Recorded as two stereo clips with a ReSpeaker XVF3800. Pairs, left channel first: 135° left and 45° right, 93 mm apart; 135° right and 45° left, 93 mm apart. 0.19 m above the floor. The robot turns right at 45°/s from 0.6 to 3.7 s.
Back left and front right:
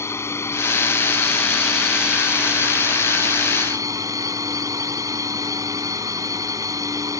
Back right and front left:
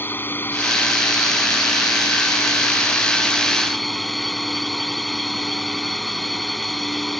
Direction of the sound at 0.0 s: 175° left.